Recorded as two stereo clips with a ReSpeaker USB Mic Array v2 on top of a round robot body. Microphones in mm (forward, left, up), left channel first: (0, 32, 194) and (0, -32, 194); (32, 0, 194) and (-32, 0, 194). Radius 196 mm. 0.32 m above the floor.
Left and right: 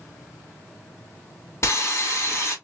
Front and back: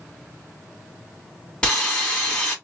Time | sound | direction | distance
1.6 | sawing | 70° left | 2 m